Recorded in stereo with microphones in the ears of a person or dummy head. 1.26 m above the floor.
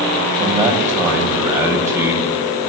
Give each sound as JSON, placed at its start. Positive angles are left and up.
{"t": 0.4, "sound": "a man speaking", "side_deg": -5, "distance_m": 8.5}